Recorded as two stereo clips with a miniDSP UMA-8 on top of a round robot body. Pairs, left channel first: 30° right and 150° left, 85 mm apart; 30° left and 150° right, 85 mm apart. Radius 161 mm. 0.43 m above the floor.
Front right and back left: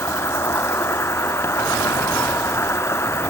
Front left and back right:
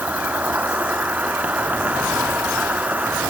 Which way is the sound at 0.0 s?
80° right.